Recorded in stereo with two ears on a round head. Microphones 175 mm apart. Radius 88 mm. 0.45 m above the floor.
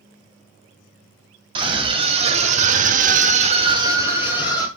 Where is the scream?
25° right (ahead or behind), 2.5 m; by 4.7 s 5° right (ahead or behind), 2 m.